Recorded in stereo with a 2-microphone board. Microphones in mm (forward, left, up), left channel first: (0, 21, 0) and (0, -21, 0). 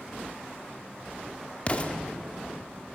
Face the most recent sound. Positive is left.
turn(degrees=30)  # may be behind; listen again after turning